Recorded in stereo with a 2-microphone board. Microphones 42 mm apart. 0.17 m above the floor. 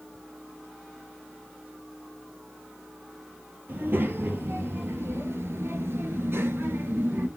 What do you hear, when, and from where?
3.7 s a child speaking: 50° right (ahead or behind), 2 m